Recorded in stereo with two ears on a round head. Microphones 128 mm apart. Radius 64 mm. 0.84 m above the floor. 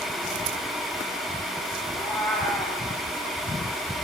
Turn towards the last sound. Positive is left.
turn(degrees=15)  # may be behind; listen again after turning